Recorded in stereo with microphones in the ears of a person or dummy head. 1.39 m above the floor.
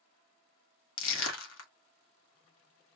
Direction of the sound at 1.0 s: 75° left (ahead or behind).